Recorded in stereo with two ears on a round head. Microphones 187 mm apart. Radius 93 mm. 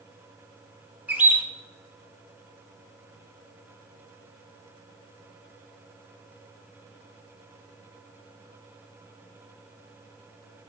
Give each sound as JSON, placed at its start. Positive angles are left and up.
{"t": 1.1, "sound": "a bird", "side_deg": -10, "distance_m": 0.9}